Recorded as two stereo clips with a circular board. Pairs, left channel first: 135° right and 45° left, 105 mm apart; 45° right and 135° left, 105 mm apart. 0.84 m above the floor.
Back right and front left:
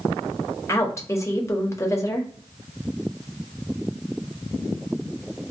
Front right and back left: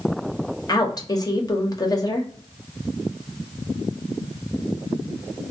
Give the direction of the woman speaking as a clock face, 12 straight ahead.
3 o'clock.